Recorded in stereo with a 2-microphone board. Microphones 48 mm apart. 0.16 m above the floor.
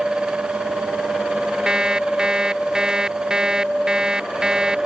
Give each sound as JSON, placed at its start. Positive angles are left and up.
{"t": 1.7, "sound": "an alarm clock", "side_deg": -15}